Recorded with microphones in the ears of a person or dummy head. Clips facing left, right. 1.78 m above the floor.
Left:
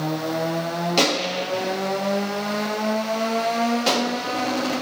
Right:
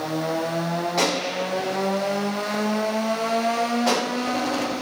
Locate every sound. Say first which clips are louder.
1.0 s a gunshot: left 3 dB; 45° left (ahead or behind), 0.9 m